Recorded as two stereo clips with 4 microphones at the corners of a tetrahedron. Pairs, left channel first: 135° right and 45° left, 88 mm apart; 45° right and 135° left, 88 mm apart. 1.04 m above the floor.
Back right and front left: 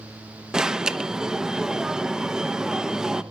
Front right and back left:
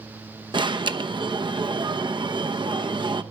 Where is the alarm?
125° left, 0.9 m.